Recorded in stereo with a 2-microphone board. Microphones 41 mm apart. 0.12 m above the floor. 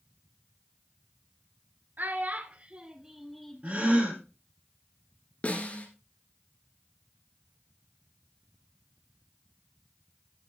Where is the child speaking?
50° right (ahead or behind), 1.4 m; by 4.2 s 30° left (ahead or behind), 1.4 m.